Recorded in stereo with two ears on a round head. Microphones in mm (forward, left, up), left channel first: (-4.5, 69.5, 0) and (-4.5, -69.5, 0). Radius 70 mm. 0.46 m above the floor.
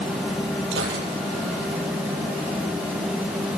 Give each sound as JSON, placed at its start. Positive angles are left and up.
{"t": 0.7, "sound": "a gunshot", "side_deg": -85, "distance_m": 9.5}